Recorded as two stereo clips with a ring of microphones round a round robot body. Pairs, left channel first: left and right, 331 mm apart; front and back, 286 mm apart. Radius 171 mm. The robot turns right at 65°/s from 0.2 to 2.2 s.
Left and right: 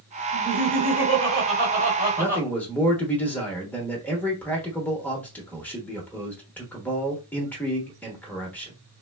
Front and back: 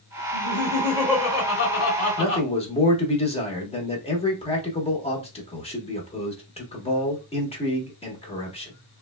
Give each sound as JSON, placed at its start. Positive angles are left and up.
{"t": 0.3, "sound": "laughter", "azimuth_deg": -135, "distance_m": 1.8}
{"t": 2.2, "sound": "a man speaking", "azimuth_deg": 10, "distance_m": 1.0}